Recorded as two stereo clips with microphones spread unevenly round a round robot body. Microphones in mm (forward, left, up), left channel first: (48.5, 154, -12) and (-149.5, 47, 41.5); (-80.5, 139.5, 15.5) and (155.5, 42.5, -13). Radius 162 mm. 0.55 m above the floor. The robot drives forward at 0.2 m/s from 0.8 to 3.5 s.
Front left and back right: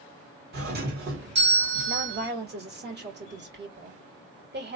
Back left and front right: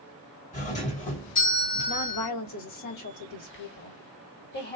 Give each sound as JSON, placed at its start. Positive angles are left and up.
{"t": 0.5, "sound": "a doorbell", "azimuth_deg": -155, "distance_m": 1.9}
{"t": 1.9, "sound": "a woman speaking", "azimuth_deg": 155, "distance_m": 1.6}